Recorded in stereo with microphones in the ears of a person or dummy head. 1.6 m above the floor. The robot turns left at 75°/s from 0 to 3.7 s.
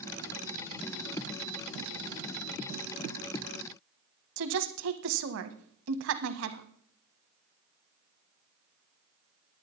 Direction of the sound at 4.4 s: 70° right (ahead or behind).